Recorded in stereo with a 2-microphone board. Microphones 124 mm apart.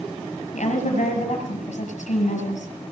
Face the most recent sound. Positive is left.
turn(degrees=80)